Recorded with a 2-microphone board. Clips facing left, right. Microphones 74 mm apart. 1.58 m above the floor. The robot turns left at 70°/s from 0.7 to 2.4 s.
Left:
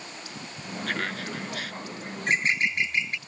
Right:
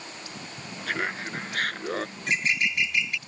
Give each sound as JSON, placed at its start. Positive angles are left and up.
{"t": 0.9, "sound": "laughter", "azimuth_deg": 0}
{"t": 2.2, "sound": "a bird", "side_deg": 45}